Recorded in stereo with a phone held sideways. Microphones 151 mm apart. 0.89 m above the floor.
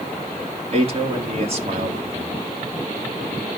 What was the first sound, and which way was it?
A man speaking, 40° right (ahead or behind).